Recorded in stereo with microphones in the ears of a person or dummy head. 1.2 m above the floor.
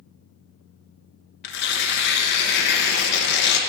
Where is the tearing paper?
55° left (ahead or behind), 0.8 m.